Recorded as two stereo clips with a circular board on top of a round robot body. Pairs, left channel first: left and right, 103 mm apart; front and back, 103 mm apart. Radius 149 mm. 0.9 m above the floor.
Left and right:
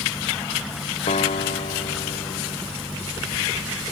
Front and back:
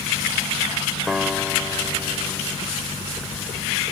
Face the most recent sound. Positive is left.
turn(degrees=90)